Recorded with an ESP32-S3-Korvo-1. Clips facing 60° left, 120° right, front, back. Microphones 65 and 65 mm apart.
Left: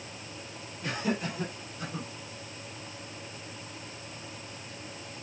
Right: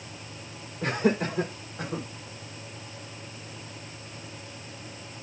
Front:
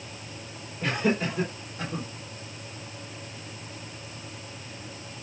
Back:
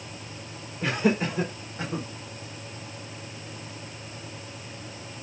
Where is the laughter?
105° right, 4.5 m; by 2.1 s 115° right, 5 m.